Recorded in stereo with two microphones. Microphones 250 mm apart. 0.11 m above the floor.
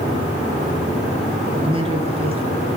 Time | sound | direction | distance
1.6 | a man speaking | 25° right (ahead or behind) | 1.6 m